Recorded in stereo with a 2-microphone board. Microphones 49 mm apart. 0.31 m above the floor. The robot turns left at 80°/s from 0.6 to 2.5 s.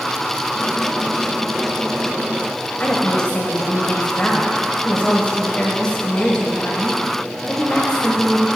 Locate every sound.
2.8 s a woman speaking: 30° left (ahead or behind), 1.5 m